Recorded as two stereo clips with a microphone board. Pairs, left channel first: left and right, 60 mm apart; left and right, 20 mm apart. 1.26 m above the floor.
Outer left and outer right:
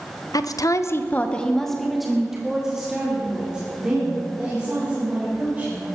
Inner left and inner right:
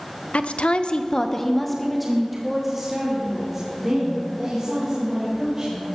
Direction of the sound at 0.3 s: 80° left.